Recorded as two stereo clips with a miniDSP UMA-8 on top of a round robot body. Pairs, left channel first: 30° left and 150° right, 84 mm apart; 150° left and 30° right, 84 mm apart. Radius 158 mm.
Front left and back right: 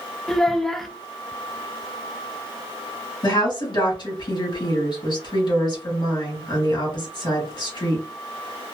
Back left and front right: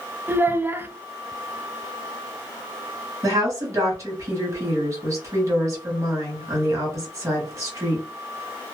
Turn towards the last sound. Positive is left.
turn(degrees=15)